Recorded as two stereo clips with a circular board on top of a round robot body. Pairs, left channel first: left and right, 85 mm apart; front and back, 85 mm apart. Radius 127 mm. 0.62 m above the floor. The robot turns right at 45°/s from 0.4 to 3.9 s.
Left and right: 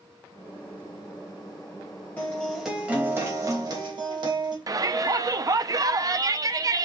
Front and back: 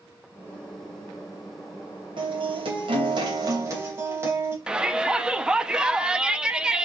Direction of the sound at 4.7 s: 105° right.